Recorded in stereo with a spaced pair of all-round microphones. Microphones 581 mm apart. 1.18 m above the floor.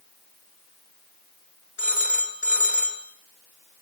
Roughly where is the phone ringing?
Left.